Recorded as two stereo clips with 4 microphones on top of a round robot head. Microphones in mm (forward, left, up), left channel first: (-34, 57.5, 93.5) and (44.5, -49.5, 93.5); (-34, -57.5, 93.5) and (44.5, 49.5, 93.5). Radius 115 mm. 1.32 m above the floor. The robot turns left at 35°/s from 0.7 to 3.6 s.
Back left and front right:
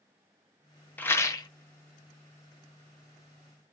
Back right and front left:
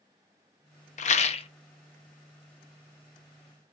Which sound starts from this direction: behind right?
A rattle, at 1.0 s.